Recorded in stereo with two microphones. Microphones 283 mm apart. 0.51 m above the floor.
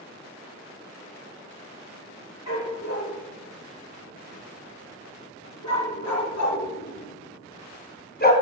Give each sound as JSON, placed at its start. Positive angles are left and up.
{"t": 2.5, "sound": "a dog barking", "side_deg": 70, "distance_m": 5.0}